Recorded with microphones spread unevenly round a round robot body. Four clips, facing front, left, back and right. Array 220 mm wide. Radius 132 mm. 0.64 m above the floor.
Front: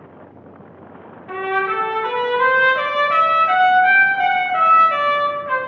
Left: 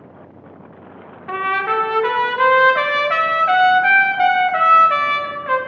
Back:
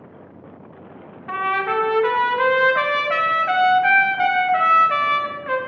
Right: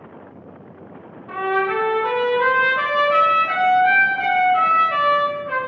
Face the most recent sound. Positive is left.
turn(degrees=90)